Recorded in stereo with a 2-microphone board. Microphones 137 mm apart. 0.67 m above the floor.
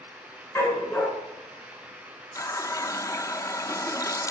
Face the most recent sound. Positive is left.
turn(degrees=20)  # may be behind; listen again after turning